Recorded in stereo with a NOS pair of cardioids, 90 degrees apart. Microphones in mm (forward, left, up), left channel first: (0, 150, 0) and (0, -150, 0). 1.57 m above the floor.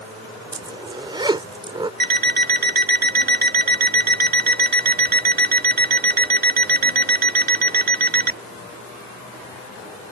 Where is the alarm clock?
30° right.